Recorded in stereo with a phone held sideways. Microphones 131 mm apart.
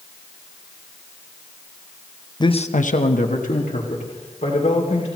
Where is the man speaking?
35° left (ahead or behind), 0.7 m; by 5.1 s 60° left (ahead or behind), 3.5 m.